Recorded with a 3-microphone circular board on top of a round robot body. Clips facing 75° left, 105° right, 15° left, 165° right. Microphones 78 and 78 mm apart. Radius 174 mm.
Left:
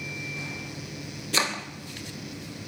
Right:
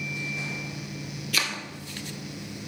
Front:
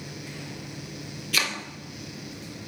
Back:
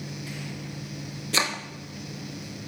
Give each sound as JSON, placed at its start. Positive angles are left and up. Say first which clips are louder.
{"t": 1.3, "sound": "chopping", "louder": "left 3 dB, back 2 dB", "azimuth_deg": 135, "distance_m": 3.5}